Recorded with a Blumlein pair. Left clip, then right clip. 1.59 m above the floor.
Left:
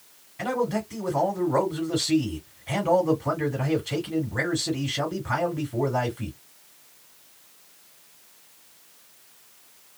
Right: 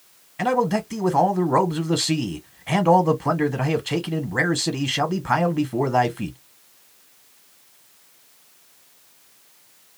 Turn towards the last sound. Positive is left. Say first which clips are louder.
# right 5 dB
turn(degrees=-65)